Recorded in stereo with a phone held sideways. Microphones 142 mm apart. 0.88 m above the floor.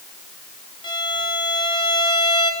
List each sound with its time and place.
0.8 s a violin: 35° left (ahead or behind), 2 m